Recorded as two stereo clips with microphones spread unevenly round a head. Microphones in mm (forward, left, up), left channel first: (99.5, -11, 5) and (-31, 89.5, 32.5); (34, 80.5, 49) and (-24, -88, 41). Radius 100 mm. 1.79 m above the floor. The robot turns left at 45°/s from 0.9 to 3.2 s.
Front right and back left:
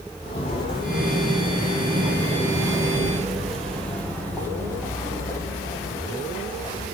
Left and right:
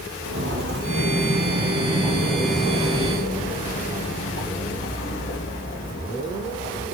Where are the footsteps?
100° right, 2.5 m; by 6.8 s 30° left, 4 m.